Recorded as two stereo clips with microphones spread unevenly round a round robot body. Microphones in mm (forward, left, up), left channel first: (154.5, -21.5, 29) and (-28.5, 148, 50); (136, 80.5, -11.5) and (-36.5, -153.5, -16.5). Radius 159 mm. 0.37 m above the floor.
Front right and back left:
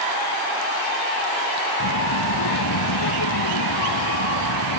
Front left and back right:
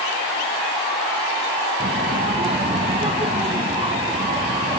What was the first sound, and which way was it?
A child speaking, 55° right.